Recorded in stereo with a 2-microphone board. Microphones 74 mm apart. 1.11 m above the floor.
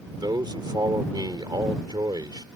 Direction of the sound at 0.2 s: 75° right (ahead or behind).